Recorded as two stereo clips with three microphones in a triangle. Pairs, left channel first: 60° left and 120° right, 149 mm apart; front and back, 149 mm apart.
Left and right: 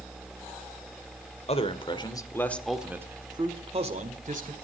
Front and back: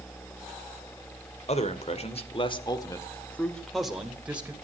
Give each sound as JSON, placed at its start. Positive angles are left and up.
{"t": 1.5, "sound": "a man speaking", "azimuth_deg": 25, "distance_m": 2.0}